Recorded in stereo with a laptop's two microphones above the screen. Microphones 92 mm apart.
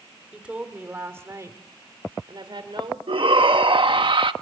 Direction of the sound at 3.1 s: 65° right (ahead or behind).